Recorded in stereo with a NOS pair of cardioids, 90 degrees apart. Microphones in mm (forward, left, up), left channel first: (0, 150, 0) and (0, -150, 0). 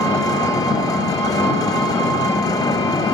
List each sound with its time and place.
0.0 s an engine running: 10° left, 1.1 m